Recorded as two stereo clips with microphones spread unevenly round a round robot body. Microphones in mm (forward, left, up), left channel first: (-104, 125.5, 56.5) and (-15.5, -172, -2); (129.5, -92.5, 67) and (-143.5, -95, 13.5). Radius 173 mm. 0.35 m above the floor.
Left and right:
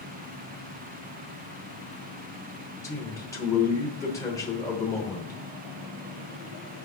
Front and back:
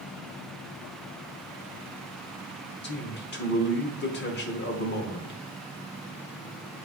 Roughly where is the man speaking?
Ahead.